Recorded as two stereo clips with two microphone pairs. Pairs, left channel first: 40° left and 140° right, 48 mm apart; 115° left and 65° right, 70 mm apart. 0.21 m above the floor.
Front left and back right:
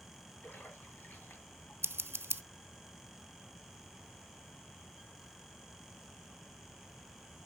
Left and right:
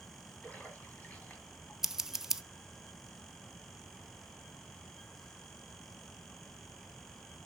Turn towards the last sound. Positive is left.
turn(degrees=-150)